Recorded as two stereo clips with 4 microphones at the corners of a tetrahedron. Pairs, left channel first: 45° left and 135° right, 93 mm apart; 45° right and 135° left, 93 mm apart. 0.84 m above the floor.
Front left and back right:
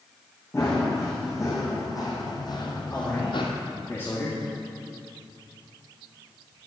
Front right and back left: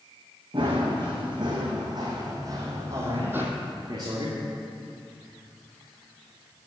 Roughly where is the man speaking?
Left.